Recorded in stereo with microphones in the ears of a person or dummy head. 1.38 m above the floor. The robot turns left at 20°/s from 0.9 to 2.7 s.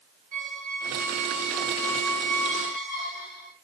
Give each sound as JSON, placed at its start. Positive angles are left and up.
{"t": 0.3, "sound": "a squeak", "azimuth_deg": -160, "distance_m": 1.4}